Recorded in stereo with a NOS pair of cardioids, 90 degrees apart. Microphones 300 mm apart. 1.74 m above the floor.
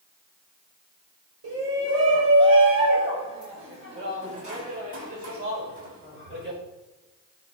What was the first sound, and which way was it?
A shout, 50° right.